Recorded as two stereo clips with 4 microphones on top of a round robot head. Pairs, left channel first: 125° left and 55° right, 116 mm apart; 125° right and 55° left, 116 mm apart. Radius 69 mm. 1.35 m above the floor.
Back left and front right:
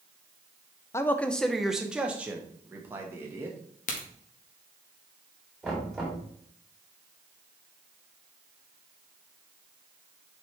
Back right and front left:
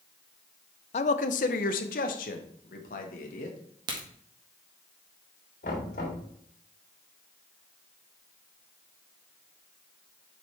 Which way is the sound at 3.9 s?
110° left.